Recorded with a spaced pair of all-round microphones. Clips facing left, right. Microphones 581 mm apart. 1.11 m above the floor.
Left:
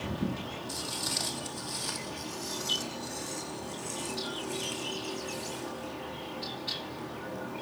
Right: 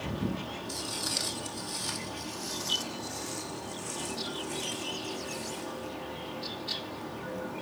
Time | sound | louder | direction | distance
0.7 | footsteps | right 1 dB | 35° left (ahead or behind) | 2.5 m